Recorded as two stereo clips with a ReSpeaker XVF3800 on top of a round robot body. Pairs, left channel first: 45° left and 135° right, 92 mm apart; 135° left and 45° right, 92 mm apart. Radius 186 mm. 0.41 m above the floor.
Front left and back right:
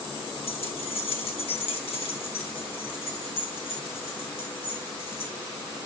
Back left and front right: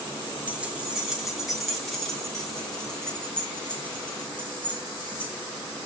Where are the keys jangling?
30° left, 3 m; by 5.3 s 65° left, 6.5 m.